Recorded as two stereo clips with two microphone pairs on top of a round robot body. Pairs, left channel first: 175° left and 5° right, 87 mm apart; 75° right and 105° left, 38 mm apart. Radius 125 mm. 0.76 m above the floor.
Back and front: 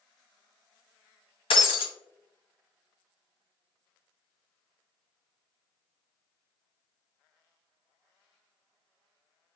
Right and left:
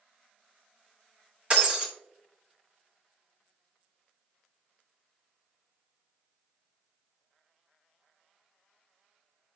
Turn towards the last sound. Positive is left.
turn(degrees=165)